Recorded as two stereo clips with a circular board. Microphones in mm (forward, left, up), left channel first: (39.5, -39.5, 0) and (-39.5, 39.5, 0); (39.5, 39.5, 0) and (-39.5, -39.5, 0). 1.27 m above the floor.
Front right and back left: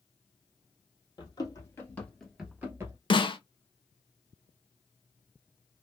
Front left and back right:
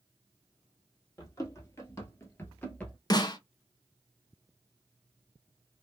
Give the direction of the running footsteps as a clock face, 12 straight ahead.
12 o'clock.